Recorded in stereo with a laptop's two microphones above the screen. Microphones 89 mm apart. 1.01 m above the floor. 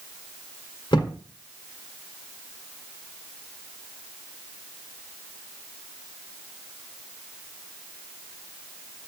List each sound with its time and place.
0.9 s a thud: 60° left (ahead or behind), 1.3 m